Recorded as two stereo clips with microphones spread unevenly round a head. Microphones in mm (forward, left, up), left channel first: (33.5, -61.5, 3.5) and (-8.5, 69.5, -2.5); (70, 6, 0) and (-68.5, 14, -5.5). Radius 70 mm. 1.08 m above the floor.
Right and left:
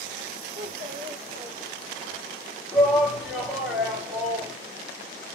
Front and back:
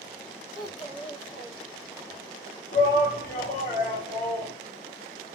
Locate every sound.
0.6 s a child speaking: 55° left, 2.0 m
2.7 s a shout: 25° left, 2 m